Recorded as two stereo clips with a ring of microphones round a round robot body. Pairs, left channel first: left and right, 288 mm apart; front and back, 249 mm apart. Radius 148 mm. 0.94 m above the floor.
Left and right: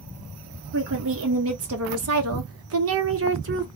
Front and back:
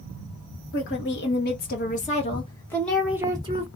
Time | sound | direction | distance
0.7 | a woman speaking | 45° right | 1.5 m